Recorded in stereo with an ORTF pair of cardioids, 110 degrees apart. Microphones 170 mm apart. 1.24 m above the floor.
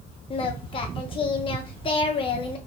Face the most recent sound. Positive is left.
turn(degrees=30)